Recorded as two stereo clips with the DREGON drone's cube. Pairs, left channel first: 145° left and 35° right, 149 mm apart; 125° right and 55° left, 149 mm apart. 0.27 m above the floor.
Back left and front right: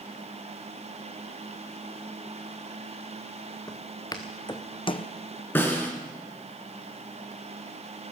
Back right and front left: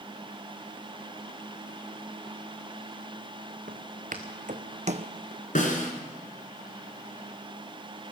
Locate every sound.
3.7 s footsteps: 80° left, 2 m; by 5.1 s 100° left, 0.6 m
5.5 s a snare drum: 140° right, 2.5 m